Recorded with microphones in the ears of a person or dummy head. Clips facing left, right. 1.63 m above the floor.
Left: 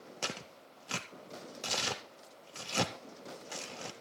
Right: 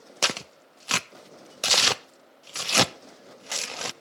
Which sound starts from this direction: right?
Tearing paper, at 0.2 s.